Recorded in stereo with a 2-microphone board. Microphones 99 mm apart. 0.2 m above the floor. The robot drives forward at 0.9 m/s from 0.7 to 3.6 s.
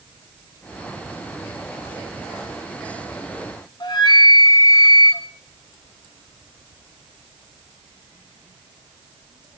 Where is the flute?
50° left (ahead or behind), 1.3 m.